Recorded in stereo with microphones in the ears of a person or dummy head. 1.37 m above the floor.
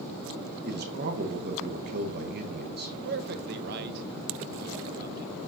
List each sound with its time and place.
0.7 s a man speaking: 50° right (ahead or behind), 1.2 m
3.0 s a man speaking: 55° right (ahead or behind), 1.1 m